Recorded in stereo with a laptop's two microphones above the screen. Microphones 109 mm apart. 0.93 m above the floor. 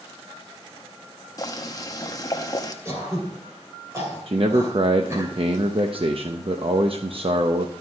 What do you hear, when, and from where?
1.4 s boiling: 35° left (ahead or behind), 0.7 m
2.9 s throat clearing: 25° right (ahead or behind), 2.5 m
4.3 s a man speaking: 55° right (ahead or behind), 0.7 m